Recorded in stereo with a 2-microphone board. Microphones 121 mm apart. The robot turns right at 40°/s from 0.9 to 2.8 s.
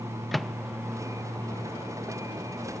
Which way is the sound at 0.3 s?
Centre (ahead or behind).